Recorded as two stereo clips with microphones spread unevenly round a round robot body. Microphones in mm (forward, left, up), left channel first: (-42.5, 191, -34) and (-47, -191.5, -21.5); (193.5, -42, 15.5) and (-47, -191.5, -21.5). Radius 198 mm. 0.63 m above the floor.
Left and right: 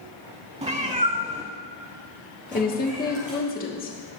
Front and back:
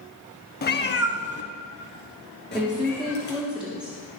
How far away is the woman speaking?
About 1.2 m.